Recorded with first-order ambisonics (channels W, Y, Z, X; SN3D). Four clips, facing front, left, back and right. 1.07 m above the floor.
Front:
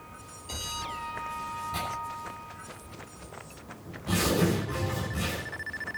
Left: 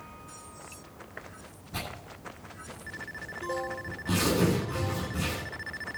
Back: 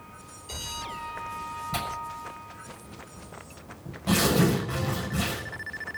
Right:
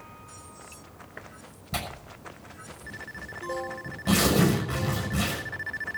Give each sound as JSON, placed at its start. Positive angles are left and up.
{"t": 1.7, "sound": "tearing paper", "azimuth_deg": -115, "distance_m": 6.0}